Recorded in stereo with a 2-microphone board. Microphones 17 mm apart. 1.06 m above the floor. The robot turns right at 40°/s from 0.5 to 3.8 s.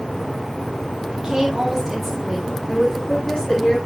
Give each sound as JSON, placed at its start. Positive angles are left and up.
{"t": 1.1, "sound": "a woman speaking", "azimuth_deg": -40, "distance_m": 3.0}